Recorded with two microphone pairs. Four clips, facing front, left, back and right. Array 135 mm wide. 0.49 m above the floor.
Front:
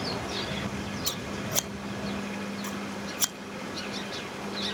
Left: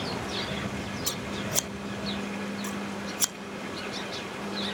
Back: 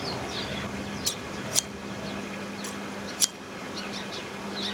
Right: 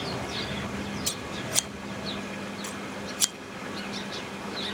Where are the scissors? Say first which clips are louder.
Left 1 dB, front 1 dB; 10° left, 0.6 m.